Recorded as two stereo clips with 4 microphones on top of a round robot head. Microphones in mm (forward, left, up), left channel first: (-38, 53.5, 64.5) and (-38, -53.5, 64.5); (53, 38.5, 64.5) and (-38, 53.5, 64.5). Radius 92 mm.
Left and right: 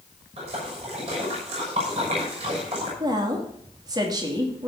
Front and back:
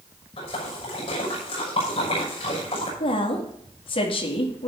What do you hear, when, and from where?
0.4 s a splash: 50° right, 6 m
3.0 s a woman speaking: 35° right, 2.5 m